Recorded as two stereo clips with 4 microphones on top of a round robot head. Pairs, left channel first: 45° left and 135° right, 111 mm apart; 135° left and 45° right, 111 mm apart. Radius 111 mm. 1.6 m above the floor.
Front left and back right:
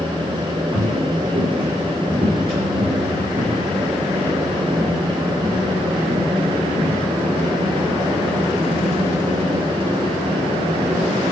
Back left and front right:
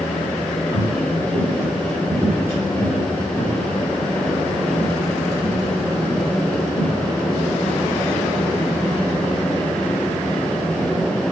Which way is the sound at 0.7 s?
85° right.